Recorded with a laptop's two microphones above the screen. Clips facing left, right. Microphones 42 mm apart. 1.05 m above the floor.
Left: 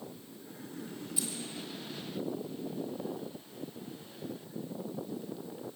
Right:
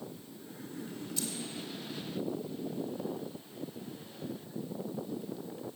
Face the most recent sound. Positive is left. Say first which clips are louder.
# even
turn(degrees=10)  # may be behind; listen again after turning